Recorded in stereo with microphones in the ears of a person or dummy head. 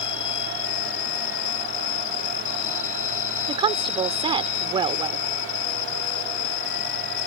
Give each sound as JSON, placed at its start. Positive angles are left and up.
{"t": 0.0, "sound": "an insect", "side_deg": 65}
{"t": 3.5, "sound": "a woman speaking", "side_deg": -25}